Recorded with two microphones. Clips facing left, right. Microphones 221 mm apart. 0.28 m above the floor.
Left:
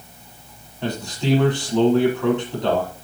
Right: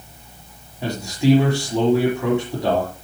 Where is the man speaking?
10° right (ahead or behind), 5.5 m.